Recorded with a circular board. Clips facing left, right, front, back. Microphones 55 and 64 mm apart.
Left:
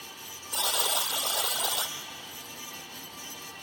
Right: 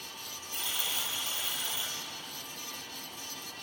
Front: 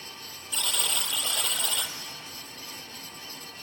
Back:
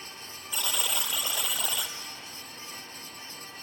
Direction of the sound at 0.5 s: 95° left.